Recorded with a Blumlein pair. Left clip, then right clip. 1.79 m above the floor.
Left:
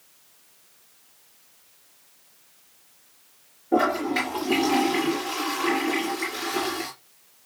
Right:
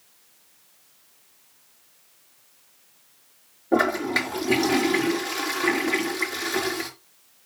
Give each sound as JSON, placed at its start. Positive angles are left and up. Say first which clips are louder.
{"t": 3.7, "sound": "a toilet flushing", "louder": "even", "azimuth_deg": -65, "distance_m": 4.0}